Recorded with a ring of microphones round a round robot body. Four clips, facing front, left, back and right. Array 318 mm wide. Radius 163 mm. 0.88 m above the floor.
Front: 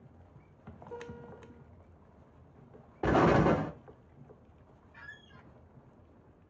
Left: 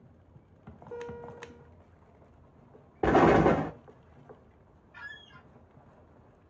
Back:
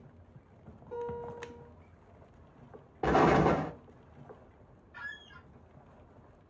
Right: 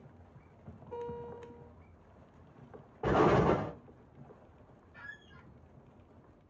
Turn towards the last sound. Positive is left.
turn(degrees=120)